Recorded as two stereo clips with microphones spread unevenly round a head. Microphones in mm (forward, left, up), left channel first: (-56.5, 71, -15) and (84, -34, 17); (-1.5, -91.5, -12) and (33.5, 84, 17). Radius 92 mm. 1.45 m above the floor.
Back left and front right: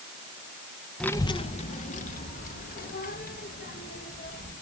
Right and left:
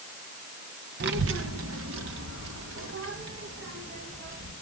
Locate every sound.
1.0 s a child speaking: 55° left, 0.8 m; by 4.5 s 110° left, 6 m